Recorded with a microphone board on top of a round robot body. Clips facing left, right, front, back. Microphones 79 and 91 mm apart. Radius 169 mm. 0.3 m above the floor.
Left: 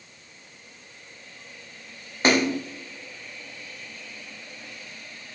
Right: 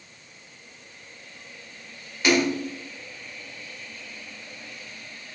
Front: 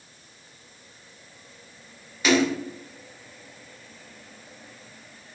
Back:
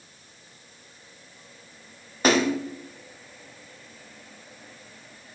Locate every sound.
2.2 s a splash: 140° left, 1.8 m